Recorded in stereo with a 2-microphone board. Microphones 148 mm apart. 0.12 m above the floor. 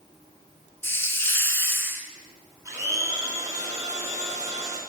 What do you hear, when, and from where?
0.8 s a hiss: 15° left (ahead or behind), 0.5 m
2.6 s a blender: 20° right (ahead or behind), 1.6 m